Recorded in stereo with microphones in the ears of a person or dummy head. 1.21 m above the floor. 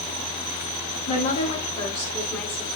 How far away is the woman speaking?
About 2.5 m.